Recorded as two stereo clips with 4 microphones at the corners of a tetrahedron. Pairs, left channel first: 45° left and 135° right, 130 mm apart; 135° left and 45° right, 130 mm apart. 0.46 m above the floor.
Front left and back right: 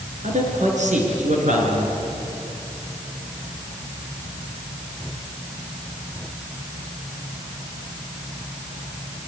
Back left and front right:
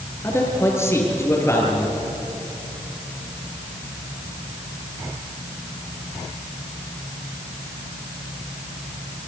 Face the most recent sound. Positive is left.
turn(degrees=-155)